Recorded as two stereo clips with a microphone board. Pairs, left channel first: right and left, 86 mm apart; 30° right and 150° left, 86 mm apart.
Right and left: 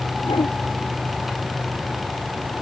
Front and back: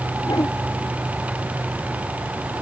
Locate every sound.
0.2 s a whoosh: 75° right